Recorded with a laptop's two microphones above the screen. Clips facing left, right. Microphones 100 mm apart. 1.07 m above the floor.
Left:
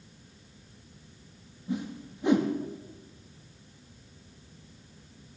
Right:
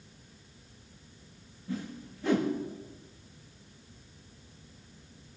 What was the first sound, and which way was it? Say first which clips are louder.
A whoosh: left 4 dB; 20° left (ahead or behind).